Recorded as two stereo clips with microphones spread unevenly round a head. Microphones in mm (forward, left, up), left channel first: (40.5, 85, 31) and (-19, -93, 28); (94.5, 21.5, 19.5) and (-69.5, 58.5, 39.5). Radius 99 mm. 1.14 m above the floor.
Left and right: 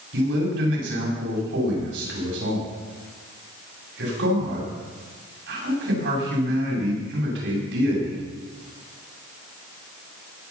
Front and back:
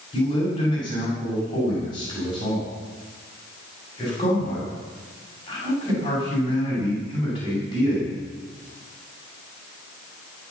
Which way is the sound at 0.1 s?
80° right.